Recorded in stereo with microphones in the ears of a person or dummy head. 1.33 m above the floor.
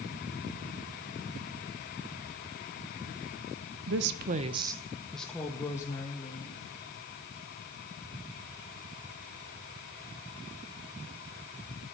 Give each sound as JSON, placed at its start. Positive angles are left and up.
{"t": 3.9, "sound": "a woman speaking", "side_deg": -75, "distance_m": 1.1}